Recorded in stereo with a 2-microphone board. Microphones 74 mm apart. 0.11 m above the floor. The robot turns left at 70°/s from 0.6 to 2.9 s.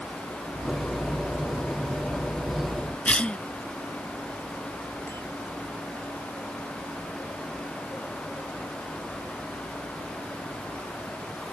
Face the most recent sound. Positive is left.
turn(degrees=30)  # may be behind; listen again after turning